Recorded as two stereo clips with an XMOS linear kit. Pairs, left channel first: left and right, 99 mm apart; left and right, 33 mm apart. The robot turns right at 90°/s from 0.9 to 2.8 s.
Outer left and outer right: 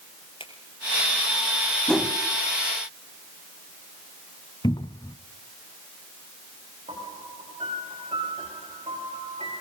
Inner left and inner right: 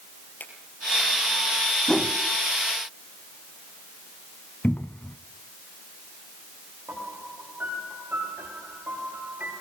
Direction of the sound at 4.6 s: 50° left (ahead or behind).